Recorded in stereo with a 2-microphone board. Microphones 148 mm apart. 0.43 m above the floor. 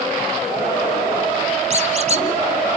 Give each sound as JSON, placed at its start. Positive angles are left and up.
{"t": 1.7, "sound": "a squeak", "side_deg": -45, "distance_m": 2.0}